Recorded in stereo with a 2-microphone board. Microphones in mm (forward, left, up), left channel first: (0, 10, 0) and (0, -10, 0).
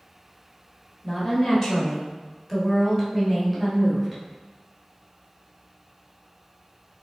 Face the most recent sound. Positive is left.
turn(degrees=10)  # may be behind; listen again after turning